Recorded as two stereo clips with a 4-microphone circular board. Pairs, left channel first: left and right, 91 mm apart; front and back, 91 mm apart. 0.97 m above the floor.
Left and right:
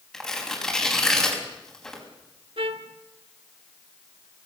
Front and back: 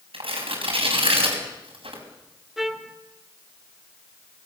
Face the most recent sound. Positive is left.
turn(degrees=-95)